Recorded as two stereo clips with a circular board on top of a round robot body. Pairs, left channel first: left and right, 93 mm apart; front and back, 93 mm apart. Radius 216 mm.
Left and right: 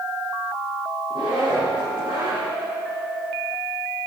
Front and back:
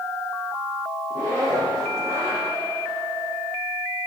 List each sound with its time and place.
1.1 s a zipper: 125° right, 4 m